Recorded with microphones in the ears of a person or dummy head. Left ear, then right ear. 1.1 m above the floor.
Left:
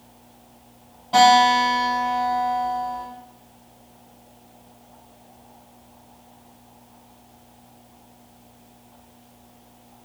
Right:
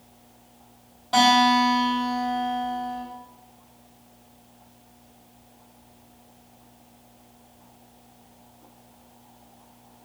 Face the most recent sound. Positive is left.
turn(degrees=-35)  # may be behind; listen again after turning